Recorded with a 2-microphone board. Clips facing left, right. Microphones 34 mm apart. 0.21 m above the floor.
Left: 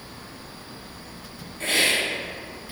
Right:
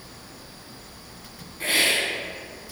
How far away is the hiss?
About 0.8 m.